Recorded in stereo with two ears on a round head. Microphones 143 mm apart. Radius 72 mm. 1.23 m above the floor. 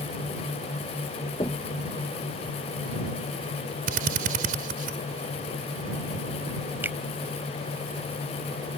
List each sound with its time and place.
1.4 s knocking: 25° left (ahead or behind)
3.9 s a drill: 60° right (ahead or behind)
6.8 s a finger snap: 15° right (ahead or behind)